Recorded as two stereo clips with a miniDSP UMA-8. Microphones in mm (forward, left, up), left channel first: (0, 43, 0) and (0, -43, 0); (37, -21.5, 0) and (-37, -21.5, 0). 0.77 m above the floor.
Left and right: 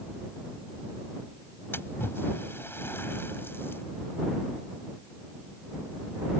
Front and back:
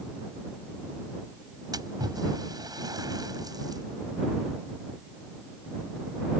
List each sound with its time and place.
1.7 s a splash: 155° left